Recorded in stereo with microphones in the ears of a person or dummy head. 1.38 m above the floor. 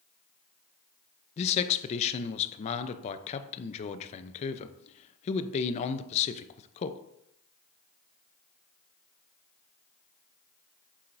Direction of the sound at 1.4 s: 35° left (ahead or behind).